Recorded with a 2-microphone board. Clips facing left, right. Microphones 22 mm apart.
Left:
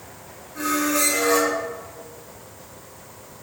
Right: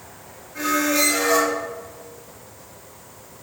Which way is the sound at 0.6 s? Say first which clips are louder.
Right 2 dB; 40° right (ahead or behind).